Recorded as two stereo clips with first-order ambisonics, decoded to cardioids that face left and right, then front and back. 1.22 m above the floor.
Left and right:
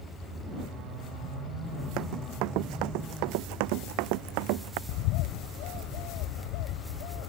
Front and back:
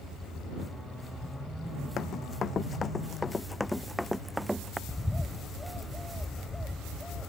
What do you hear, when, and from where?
2.0 s running footsteps: 60° right; by 4.8 s 100° right
4.9 s a bird: 85° left